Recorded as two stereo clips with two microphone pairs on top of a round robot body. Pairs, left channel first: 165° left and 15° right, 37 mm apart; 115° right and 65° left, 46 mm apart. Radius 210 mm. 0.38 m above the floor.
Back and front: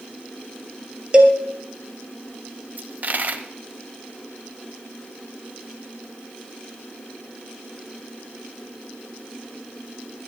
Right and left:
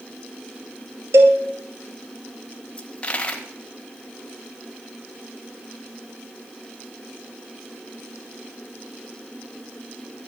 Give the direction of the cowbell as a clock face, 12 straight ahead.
10 o'clock.